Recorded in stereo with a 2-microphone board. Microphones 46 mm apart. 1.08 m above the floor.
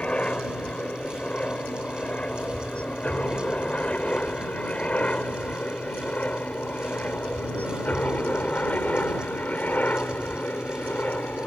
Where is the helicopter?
25° left (ahead or behind); by 11.5 s 40° left (ahead or behind).